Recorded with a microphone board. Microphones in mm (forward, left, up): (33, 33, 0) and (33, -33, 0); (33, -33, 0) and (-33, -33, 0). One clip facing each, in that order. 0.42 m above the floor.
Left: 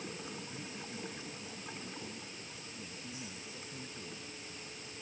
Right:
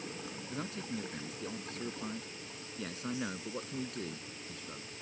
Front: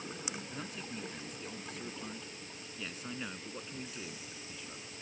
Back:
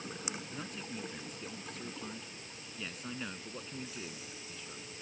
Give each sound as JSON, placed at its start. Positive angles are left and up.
{"t": 0.5, "sound": "a man speaking", "azimuth_deg": -90}